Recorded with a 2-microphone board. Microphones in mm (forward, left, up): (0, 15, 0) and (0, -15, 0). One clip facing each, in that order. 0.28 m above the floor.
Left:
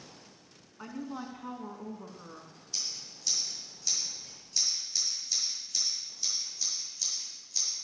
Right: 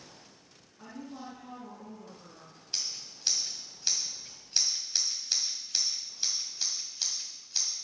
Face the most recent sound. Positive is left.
turn(degrees=-50)  # may be behind; listen again after turning